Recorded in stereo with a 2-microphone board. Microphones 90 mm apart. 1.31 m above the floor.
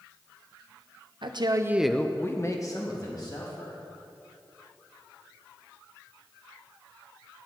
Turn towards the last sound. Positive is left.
turn(degrees=45)  # may be behind; listen again after turning